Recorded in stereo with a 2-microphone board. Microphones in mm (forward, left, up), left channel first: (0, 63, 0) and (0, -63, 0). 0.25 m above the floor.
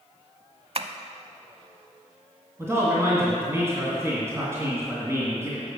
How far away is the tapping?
About 0.5 m.